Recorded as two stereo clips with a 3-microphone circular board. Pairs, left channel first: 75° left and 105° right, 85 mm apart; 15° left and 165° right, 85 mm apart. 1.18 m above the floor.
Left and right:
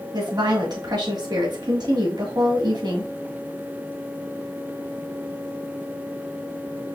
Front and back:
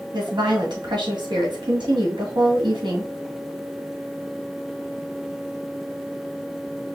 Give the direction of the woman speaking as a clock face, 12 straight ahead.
5 o'clock.